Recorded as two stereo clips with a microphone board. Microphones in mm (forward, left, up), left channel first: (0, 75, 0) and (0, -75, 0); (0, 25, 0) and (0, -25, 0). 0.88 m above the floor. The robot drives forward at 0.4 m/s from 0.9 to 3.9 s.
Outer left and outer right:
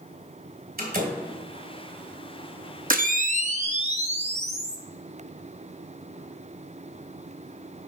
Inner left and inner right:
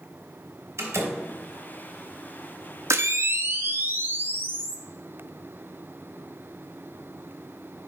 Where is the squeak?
No squeak in this recording.